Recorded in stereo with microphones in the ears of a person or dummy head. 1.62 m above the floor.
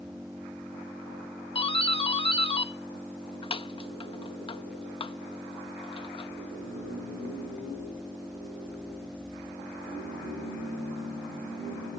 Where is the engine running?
5° right (ahead or behind).